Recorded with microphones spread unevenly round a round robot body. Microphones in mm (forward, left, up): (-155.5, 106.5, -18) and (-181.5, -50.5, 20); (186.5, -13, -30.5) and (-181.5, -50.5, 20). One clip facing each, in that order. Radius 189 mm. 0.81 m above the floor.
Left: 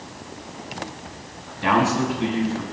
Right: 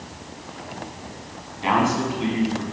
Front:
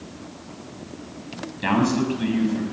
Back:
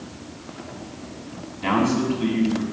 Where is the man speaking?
35° left, 5.5 m.